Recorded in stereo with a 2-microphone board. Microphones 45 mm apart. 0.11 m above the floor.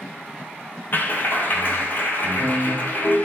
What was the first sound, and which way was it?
A clap, 45° left (ahead or behind).